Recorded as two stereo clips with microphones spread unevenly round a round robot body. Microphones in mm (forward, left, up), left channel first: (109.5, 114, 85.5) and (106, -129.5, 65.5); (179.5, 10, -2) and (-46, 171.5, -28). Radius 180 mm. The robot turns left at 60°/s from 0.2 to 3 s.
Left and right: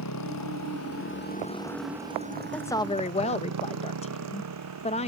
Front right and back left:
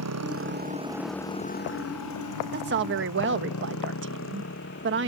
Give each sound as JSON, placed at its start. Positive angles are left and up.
{"t": 0.0, "sound": "a motorcycle", "azimuth_deg": 120}
{"t": 2.5, "sound": "a woman speaking", "azimuth_deg": 180}